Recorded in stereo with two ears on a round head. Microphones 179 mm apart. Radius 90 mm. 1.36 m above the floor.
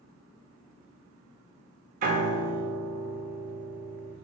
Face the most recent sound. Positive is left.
turn(degrees=-45)  # may be behind; listen again after turning